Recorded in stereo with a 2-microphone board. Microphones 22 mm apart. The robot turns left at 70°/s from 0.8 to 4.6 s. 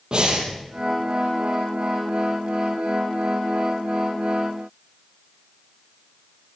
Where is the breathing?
45° right (ahead or behind), 4 m.